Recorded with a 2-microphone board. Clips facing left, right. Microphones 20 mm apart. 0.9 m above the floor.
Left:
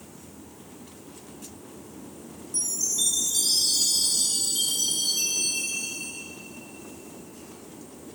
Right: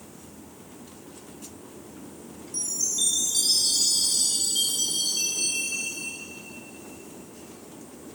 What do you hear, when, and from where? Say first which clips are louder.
2.5 s a chime: even; 15° right (ahead or behind), 2.0 m